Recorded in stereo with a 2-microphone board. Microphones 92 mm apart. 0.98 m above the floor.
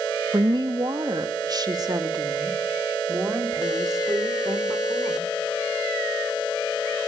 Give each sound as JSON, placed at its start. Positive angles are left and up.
{"t": 0.3, "sound": "a woman speaking", "side_deg": -50, "distance_m": 1.4}